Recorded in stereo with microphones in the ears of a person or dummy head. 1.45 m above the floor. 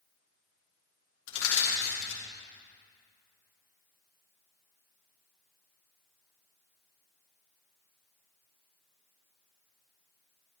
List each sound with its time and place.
1.3 s crushing: 85° left, 3 m